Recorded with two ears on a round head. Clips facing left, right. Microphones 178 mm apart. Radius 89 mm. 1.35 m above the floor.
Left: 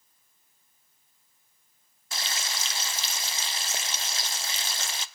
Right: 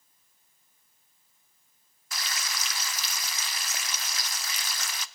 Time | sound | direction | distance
2.1 | frying | 25° left (ahead or behind) | 0.6 m